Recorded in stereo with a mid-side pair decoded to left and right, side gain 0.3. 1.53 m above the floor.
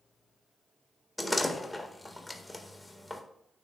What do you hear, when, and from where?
1.2 s a door slam: 10° left, 1.5 m